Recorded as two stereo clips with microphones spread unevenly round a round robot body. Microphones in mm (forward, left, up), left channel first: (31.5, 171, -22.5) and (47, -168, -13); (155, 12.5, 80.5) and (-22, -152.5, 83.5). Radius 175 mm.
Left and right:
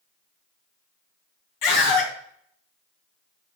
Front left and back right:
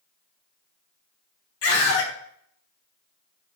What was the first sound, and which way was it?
A scream, 75° left.